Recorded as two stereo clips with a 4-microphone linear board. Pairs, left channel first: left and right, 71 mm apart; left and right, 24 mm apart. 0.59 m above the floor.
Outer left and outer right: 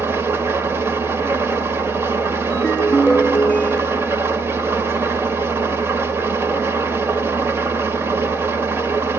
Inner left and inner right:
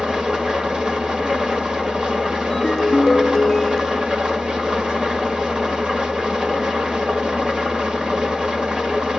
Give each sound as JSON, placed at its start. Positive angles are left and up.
{"t": 0.0, "sound": "an engine running", "side_deg": -35, "distance_m": 1.7}
{"t": 2.5, "sound": "a ringtone", "side_deg": 15, "distance_m": 0.7}